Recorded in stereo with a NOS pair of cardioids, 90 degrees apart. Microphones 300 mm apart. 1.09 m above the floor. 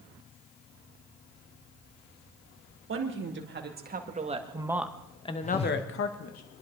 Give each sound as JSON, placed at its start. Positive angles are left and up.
{"t": 2.9, "sound": "a woman speaking", "azimuth_deg": -45, "distance_m": 3.0}
{"t": 5.4, "sound": "a whoosh", "azimuth_deg": 20, "distance_m": 1.5}